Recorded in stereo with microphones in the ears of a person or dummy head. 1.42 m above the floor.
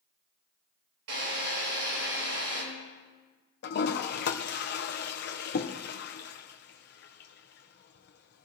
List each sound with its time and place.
1.1 s a drill: 80° right, 7.5 m
3.6 s a toilet flushing: 60° left (ahead or behind), 1.0 m